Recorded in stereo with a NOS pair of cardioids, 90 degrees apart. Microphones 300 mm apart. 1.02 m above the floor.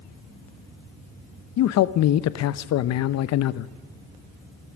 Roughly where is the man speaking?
Ahead left.